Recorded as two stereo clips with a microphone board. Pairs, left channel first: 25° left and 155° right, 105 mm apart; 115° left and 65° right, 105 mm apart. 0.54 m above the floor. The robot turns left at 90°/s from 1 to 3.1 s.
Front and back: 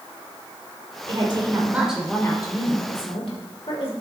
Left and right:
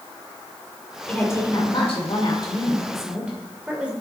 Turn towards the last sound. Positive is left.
turn(degrees=10)